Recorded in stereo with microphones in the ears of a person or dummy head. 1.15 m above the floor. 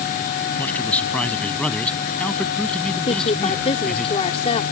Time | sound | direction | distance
0.6 | a man speaking | 10° left (ahead or behind) | ?
3.1 | a woman speaking | 35° left (ahead or behind) | ?